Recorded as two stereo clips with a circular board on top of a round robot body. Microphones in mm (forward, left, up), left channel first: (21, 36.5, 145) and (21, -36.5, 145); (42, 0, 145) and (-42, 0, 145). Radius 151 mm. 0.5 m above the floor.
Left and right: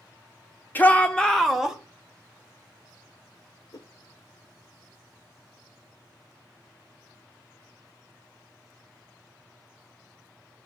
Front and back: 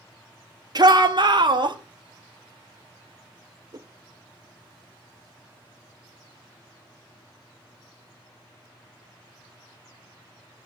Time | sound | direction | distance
0.8 | a shout | 155° left | 1.8 m
3.7 | a whoosh | 135° left | 0.6 m